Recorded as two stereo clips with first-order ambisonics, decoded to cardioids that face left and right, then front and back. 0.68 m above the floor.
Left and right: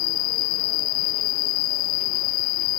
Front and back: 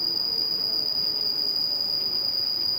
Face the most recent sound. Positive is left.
turn(degrees=90)